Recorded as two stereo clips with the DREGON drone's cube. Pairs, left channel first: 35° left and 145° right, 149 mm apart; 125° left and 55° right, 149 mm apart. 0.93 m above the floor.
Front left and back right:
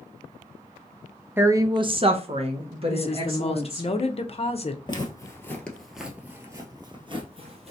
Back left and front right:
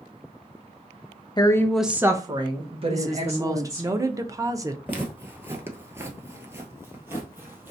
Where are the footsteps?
10° left, 1.1 m; by 7.7 s 125° right, 1.4 m.